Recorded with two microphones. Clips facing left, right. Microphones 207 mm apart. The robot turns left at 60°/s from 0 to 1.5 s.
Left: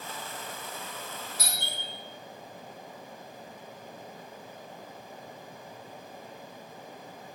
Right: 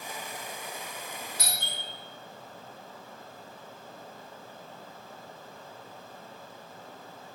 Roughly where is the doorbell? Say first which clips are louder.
Even; right.